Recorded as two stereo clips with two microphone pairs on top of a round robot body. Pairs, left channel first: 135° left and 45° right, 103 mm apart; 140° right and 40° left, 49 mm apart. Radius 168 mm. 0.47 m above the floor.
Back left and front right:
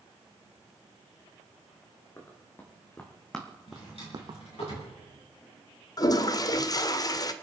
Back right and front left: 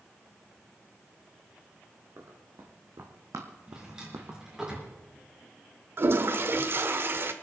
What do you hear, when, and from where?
2.2 s running footsteps: 70° left, 3 m; by 4.7 s 25° right, 1.2 m
3.7 s a drawer: 115° left, 4.5 m
6.0 s a toilet flushing: 80° left, 0.8 m